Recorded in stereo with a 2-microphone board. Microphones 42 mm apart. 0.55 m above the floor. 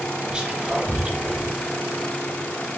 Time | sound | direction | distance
0.3 | whispering | 25° right (ahead or behind) | 0.8 m